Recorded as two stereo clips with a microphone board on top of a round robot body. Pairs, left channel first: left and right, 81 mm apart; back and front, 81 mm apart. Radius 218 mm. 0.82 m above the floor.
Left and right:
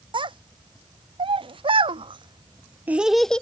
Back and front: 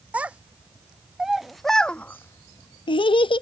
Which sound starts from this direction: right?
A child speaking, at 0.1 s.